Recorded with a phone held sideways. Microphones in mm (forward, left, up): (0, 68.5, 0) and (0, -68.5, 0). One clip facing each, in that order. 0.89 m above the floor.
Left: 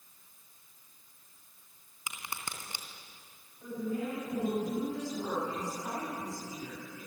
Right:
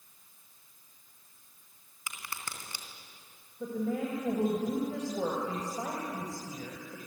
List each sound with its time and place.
2.1 s a crack: 20° left (ahead or behind), 3 m
3.6 s a woman speaking: 75° right (ahead or behind), 4.5 m